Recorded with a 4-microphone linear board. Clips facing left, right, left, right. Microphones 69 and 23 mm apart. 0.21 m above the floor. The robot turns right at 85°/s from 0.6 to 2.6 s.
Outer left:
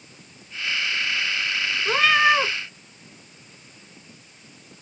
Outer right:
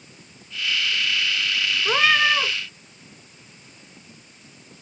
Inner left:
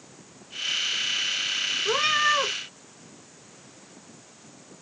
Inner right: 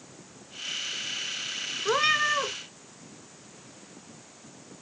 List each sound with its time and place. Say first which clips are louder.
1.9 s a cat meowing: outer left 1 dB, even; 20° right, 0.6 m; by 2.5 s 35° left, 0.6 m